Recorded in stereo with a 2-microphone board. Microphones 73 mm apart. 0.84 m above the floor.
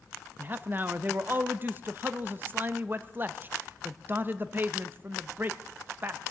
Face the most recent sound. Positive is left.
turn(degrees=-30)  # may be behind; listen again after turning